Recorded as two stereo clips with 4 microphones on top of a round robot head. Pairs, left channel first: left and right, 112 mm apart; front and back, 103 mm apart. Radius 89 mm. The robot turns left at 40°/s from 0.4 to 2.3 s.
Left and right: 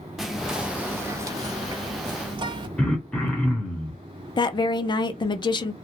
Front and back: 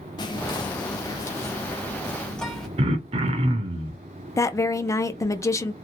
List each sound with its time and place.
0.2 s whispering: 5° right, 0.9 m; by 2.7 s 80° right, 0.9 m
2.8 s throat clearing: 175° left, 0.5 m
4.4 s a woman speaking: 55° left, 0.7 m